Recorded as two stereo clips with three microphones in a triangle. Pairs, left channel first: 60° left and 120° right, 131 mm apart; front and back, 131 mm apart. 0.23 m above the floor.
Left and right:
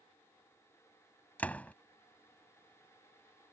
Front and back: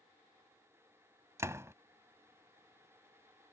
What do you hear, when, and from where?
1.4 s a door slam: 130° left